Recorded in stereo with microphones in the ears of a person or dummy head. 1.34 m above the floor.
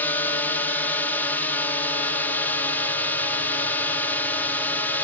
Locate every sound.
0.0 s a drone: 15° left (ahead or behind)